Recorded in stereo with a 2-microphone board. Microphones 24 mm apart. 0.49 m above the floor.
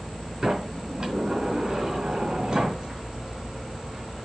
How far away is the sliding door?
About 3 m.